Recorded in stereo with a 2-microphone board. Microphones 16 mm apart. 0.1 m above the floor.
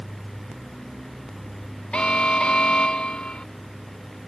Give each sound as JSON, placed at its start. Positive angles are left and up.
{"t": 1.9, "sound": "an alarm", "side_deg": 70}